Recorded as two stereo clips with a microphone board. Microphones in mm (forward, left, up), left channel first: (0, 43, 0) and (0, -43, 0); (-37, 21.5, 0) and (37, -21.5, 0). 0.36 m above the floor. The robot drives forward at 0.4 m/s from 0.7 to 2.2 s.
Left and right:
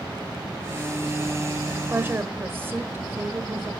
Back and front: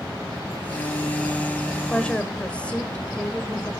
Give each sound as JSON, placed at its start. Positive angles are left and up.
{"t": 1.8, "sound": "a woman speaking", "azimuth_deg": -130, "distance_m": 1.7}